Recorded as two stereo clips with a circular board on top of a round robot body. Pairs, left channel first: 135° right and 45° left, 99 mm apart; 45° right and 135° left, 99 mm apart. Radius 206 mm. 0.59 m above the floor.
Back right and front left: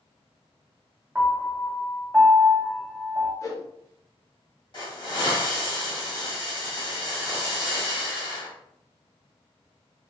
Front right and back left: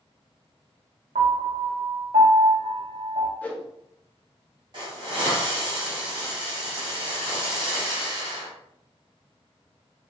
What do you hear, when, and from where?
1.1 s a piano: 125° left, 0.6 m
3.4 s a whoosh: 110° right, 1.3 m
4.7 s a hiss: straight behind, 2 m